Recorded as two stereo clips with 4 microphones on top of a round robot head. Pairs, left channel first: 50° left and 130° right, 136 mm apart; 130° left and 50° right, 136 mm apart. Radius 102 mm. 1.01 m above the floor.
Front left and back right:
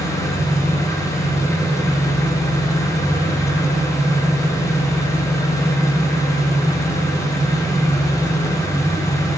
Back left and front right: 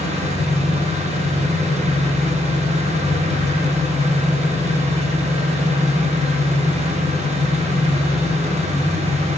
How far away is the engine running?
About 1.0 m.